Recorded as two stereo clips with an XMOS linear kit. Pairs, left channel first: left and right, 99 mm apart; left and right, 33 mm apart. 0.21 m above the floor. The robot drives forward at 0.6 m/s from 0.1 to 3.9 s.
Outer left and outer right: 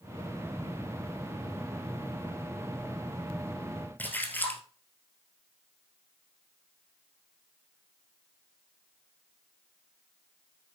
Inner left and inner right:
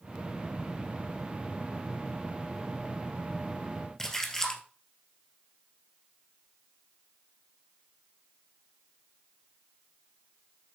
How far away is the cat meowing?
No cat meowing in this recording.